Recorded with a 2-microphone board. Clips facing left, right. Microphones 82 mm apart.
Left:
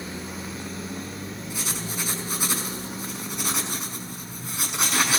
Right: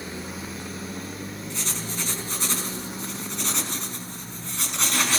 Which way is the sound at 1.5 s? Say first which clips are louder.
Left 1 dB; 15° left (ahead or behind).